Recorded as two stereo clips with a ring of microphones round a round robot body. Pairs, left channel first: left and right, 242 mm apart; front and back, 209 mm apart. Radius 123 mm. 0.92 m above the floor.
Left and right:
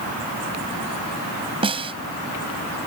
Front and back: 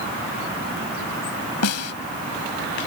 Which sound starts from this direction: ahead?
A snare drum, at 1.6 s.